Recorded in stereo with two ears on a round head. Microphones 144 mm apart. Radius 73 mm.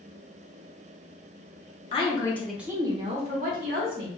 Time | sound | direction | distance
1.9 | a woman speaking | 35° left (ahead or behind) | 0.8 m